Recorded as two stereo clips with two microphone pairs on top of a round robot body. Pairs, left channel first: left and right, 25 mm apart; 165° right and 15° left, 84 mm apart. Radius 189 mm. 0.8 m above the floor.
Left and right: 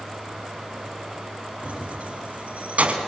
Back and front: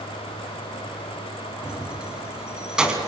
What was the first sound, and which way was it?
Keys jangling, 65° right.